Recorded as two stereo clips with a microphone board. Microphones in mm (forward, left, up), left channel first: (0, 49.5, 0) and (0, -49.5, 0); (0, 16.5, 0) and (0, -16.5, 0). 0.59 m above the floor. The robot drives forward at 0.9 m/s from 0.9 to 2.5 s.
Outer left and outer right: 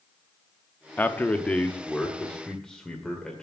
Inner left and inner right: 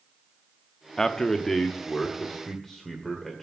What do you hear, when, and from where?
1.0 s a man speaking: 20° left (ahead or behind), 0.6 m; by 3.4 s 5° left (ahead or behind), 1.6 m